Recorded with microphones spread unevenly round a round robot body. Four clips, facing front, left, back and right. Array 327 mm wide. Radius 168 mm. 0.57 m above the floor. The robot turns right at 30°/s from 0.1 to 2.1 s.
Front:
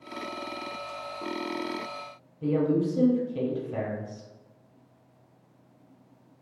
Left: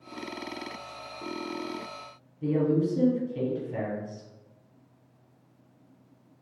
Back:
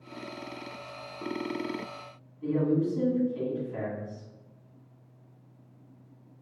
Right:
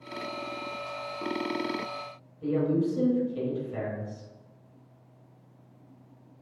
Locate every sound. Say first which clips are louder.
2.4 s a woman speaking: left 1 dB, front 2 dB; 15° left, 0.9 m